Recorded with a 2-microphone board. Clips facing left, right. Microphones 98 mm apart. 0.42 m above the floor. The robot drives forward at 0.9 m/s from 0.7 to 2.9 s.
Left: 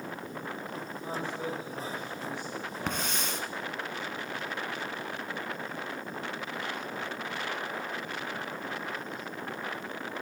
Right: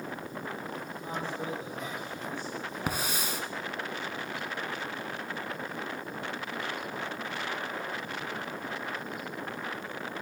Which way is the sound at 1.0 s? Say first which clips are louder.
Left 1 dB; 15° left (ahead or behind).